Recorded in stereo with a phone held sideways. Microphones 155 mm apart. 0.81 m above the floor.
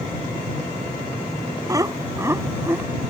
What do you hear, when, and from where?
1.7 s laughter: 20° right (ahead or behind); by 2.9 s 15° right (ahead or behind)